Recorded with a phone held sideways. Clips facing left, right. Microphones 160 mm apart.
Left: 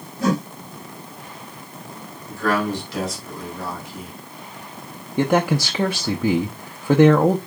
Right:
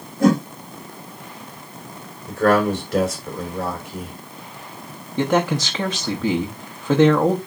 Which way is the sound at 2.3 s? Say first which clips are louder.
Right 5 dB; 55° right (ahead or behind).